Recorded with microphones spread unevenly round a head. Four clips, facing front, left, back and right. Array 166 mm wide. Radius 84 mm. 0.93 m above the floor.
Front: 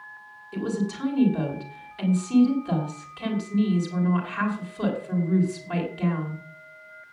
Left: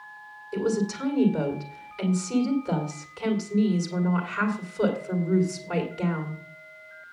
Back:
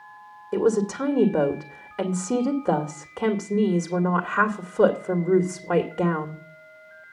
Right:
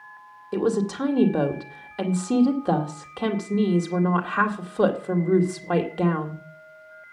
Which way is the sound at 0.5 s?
145° right.